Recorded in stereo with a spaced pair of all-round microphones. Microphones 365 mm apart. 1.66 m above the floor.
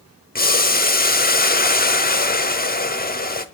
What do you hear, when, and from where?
0.3 s boiling: 25° left (ahead or behind), 0.8 m